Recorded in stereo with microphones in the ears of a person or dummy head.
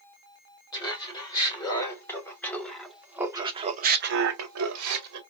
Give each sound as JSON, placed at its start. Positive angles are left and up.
{"t": 0.7, "sound": "laughter", "side_deg": 15, "distance_m": 1.9}